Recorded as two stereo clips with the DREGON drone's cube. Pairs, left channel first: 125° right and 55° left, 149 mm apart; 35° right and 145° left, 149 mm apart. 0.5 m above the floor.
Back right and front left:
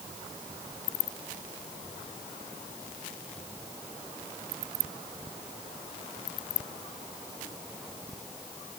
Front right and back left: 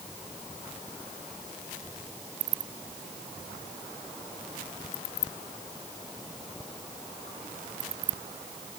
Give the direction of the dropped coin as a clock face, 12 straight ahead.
I don't hear a dropped coin.